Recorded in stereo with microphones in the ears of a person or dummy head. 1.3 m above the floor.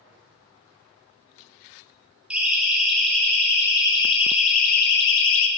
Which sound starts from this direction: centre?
A siren, at 2.3 s.